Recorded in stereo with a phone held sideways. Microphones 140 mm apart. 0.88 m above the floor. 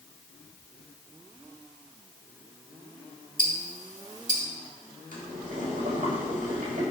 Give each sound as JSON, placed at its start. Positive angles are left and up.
{"t": 3.4, "sound": "ticking", "side_deg": -65, "distance_m": 2.0}
{"t": 5.1, "sound": "boiling", "side_deg": -70, "distance_m": 4.0}